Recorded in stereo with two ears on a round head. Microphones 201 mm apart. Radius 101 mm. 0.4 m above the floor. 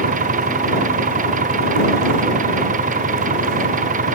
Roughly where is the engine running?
Right.